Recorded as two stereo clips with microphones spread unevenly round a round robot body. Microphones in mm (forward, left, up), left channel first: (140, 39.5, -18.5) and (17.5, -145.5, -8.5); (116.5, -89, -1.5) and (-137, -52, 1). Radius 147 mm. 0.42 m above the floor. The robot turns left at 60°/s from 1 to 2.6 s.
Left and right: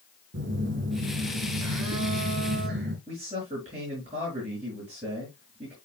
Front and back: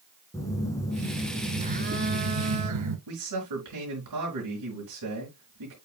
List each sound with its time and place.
0.3 s a phone buzzing: 85° right, 1.7 m; by 3.0 s 175° left, 1.7 m
3.1 s a man speaking: 165° left, 4.5 m